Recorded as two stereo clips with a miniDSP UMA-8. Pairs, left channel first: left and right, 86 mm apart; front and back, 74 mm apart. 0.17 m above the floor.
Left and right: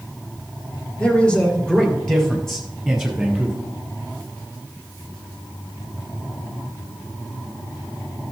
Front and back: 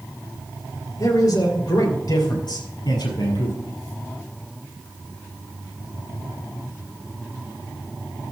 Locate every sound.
1.0 s a man speaking: 20° left, 3 m; by 3.6 s 5° right, 5 m